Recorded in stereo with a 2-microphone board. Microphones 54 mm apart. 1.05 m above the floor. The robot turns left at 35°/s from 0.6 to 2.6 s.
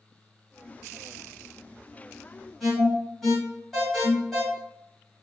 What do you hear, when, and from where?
2.6 s an alarm: centre (ahead or behind), 1.7 m